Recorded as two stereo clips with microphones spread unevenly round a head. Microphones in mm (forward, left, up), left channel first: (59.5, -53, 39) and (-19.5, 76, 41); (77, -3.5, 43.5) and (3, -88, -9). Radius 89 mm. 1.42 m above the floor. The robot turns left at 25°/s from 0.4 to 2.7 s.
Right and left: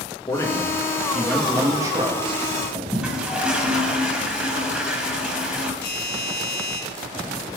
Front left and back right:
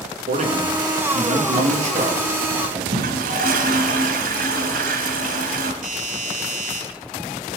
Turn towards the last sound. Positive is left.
turn(degrees=-130)